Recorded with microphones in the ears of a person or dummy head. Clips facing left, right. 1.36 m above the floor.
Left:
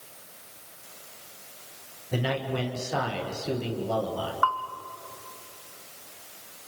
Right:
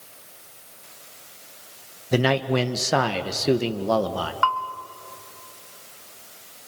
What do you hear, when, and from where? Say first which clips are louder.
2.1 s a man speaking: right 8 dB; 75° right (ahead or behind), 1.3 m
4.4 s a bell: right 3 dB; 25° right (ahead or behind), 1.1 m